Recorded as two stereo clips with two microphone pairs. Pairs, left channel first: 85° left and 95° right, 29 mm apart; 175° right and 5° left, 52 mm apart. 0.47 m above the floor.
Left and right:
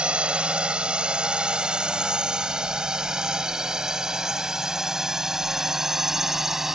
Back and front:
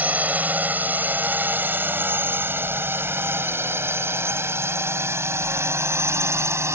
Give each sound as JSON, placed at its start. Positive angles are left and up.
{"t": 0.0, "sound": "a drone", "azimuth_deg": -50}